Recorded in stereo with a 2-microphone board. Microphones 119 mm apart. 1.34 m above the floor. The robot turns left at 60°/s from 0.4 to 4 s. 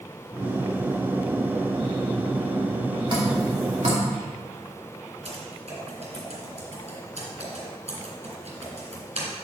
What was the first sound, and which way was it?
Dripping, 45° right (ahead or behind).